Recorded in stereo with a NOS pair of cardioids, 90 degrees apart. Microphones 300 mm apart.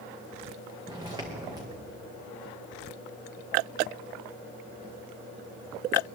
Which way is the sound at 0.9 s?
15° right.